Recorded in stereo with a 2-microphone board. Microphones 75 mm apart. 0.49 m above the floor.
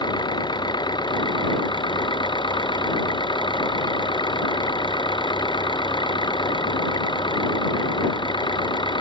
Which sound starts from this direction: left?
An engine running, at 0.0 s.